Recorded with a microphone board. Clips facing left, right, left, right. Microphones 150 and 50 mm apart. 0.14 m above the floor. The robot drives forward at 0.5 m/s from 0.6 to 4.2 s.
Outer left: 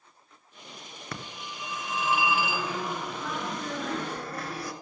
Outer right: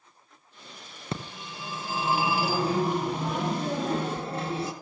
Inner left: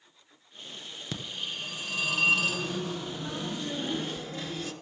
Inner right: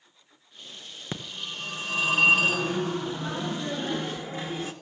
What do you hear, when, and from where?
1.1 s a phone ringing: 25° right (ahead or behind), 1.2 m